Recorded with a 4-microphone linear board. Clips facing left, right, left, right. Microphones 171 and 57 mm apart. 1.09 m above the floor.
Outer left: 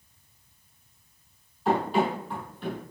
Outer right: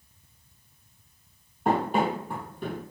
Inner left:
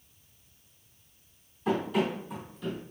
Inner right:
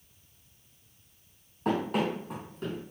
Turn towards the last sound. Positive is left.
turn(degrees=-45)  # may be behind; listen again after turning